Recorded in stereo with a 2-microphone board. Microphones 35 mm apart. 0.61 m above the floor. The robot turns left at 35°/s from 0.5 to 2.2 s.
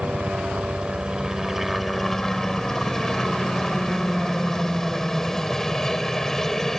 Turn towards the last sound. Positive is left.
turn(degrees=165)